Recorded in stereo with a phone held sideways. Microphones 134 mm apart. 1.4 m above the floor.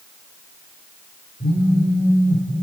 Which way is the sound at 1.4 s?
80° left.